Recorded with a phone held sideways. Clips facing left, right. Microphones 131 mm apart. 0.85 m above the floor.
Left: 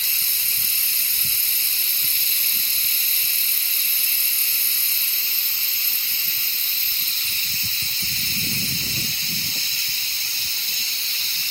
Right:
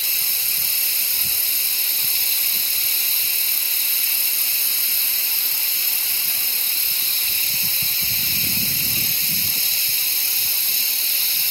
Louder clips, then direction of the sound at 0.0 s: Right 2 dB; 80° right.